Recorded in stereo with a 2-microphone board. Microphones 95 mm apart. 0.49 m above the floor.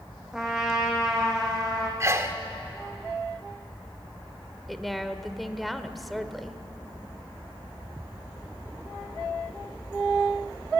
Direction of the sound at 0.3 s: 5° right (ahead or behind).